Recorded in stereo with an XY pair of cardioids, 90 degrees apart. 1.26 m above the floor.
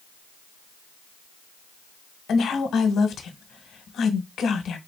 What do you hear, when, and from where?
2.3 s a woman speaking: 70° left, 0.9 m